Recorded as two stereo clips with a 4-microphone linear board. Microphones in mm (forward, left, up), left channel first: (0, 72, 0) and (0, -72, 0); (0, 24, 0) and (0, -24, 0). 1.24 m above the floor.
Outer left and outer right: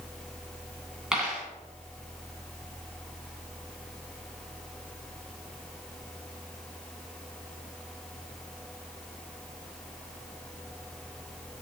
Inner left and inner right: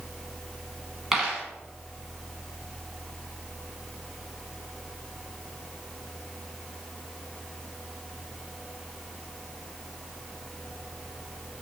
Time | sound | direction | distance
1.1 | a dropped coin | 5° right (ahead or behind) | 1.5 m